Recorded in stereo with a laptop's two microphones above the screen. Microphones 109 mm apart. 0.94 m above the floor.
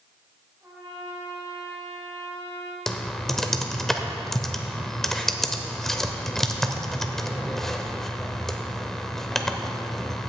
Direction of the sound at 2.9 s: 5° left (ahead or behind).